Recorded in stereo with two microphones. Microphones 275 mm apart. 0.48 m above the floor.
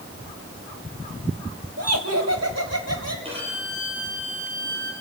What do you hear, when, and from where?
1.8 s laughter: 65° right (ahead or behind), 1.8 m; by 3.1 s 70° right (ahead or behind), 3.5 m
3.2 s a violin: 20° right (ahead or behind), 7.5 m